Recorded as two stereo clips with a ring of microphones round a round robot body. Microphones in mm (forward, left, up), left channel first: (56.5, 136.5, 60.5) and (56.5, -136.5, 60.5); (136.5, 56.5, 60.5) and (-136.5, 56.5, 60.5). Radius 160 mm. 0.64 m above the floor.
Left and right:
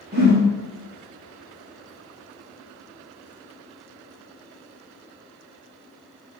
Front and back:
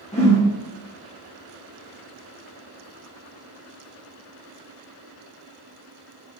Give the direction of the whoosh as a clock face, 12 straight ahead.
2 o'clock.